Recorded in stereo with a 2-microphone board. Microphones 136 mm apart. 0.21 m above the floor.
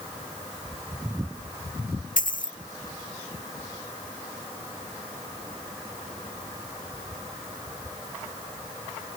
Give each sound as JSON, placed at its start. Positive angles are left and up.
{"t": 2.2, "sound": "a dropped coin", "side_deg": 85}